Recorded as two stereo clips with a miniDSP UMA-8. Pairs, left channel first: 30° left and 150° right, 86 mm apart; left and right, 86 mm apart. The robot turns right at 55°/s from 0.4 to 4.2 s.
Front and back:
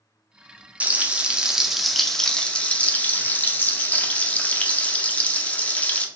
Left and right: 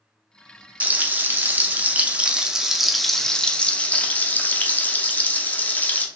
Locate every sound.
0.8 s frying: 120° right, 0.5 m; by 6.1 s 70° left, 0.5 m